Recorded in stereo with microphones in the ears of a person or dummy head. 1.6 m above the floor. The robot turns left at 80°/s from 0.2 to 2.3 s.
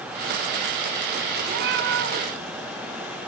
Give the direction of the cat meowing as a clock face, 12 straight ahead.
2 o'clock.